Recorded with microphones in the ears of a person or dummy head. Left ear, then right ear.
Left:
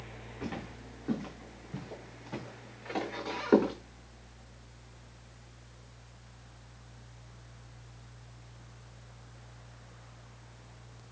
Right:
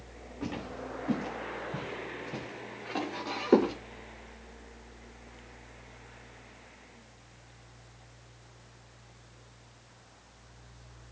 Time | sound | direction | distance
0.4 | footsteps | 15° left (ahead or behind) | 9.5 m